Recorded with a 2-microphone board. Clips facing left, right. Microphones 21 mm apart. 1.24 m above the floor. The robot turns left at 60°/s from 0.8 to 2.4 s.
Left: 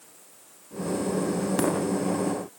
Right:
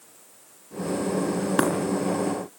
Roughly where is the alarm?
No alarm in this recording.